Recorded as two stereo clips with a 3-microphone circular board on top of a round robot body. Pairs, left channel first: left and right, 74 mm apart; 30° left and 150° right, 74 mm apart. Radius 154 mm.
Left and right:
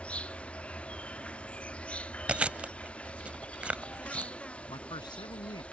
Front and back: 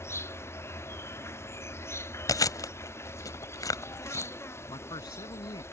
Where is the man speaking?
60° left.